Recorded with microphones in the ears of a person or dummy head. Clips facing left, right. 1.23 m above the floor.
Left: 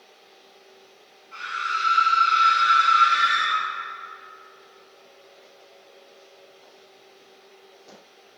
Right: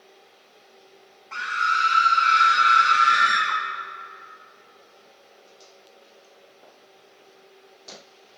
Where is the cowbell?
I don't hear a cowbell.